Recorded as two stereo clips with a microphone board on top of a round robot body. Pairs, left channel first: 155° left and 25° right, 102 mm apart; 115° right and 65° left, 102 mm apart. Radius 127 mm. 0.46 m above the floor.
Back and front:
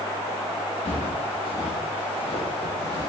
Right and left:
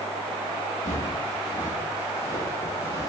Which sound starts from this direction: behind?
Footsteps, at 0.8 s.